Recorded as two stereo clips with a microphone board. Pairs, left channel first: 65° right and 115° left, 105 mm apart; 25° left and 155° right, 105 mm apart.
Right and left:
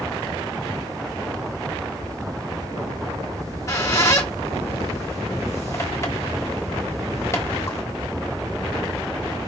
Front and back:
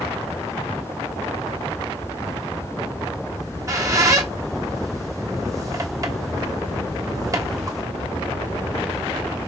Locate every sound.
3.4 s a squeak: 115° right, 0.9 m